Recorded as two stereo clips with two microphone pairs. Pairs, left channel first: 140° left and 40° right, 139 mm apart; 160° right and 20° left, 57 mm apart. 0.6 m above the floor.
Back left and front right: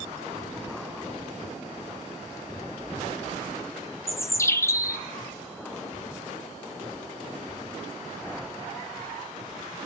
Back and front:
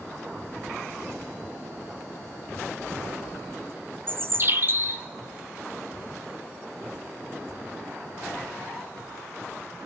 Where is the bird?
70° left, 0.7 m.